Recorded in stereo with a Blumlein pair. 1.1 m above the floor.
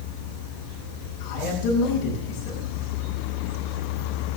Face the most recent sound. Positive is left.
turn(degrees=35)